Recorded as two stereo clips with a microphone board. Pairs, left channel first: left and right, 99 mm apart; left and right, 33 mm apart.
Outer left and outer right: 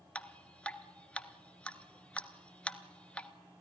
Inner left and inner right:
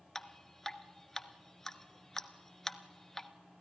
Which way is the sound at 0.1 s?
10° left (ahead or behind).